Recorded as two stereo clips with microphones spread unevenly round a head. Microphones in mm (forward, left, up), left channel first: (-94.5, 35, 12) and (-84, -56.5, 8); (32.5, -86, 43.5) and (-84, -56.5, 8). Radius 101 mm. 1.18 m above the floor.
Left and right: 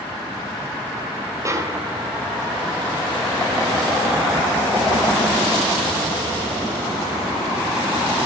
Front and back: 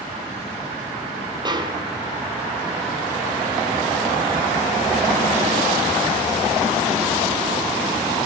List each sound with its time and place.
1.4 s a snare drum: 140° right, 3.5 m